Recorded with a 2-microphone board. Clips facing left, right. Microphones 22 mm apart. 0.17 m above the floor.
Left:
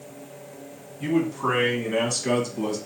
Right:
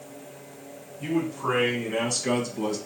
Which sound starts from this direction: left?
A man speaking, at 1.0 s.